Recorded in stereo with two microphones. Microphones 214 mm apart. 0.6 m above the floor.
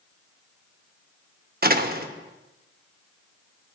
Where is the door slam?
45° right (ahead or behind), 0.7 m.